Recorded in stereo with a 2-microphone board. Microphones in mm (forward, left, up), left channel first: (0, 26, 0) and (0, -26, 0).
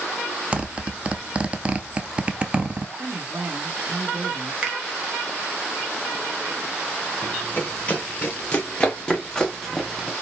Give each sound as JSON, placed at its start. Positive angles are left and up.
{"t": 0.5, "sound": "a zipper", "side_deg": -25, "distance_m": 0.6}
{"t": 3.0, "sound": "a woman speaking", "side_deg": -30, "distance_m": 1.2}
{"t": 4.6, "sound": "a finger snap", "side_deg": -20, "distance_m": 1.0}
{"t": 7.2, "sound": "running footsteps", "side_deg": 35, "distance_m": 2.5}